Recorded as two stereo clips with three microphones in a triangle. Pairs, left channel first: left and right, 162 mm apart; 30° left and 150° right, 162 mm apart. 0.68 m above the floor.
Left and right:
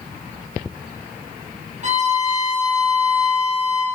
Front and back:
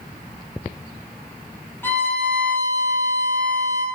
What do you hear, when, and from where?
1.8 s a violin: 50° right, 4 m